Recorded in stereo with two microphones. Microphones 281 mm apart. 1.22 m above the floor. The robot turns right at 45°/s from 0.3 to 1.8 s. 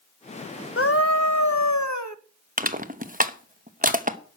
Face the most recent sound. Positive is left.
turn(degrees=-30)  # may be behind; listen again after turning